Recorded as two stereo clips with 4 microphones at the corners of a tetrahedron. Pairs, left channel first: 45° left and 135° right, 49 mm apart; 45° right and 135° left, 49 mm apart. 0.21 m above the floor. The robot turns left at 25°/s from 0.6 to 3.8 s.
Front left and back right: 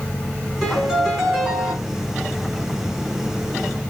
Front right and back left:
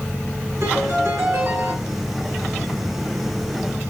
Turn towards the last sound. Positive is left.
turn(degrees=70)